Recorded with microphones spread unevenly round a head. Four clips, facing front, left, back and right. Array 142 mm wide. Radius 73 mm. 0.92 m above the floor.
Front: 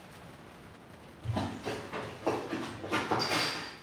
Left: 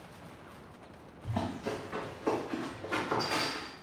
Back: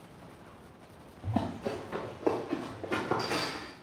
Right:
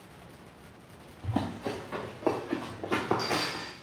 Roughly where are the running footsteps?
Behind right.